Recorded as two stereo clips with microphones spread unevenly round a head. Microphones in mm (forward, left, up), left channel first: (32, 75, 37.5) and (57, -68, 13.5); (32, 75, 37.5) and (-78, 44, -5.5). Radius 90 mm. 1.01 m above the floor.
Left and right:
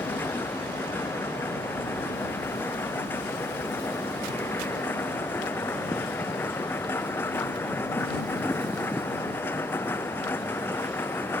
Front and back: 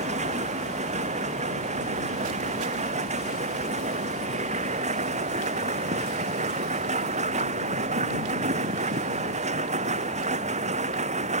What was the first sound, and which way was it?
A machine running, straight behind.